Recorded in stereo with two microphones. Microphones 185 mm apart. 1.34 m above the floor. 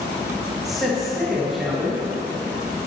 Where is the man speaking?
Centre (ahead or behind), 1.5 m.